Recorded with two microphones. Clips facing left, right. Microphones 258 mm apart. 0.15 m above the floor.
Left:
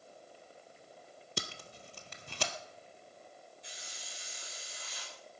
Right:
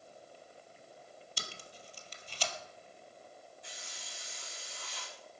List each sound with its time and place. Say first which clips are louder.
1.4 s tape being pulled: left 9 dB; 65° left (ahead or behind), 1.2 m
3.6 s a hiss: right 1 dB; 60° right (ahead or behind), 4.5 m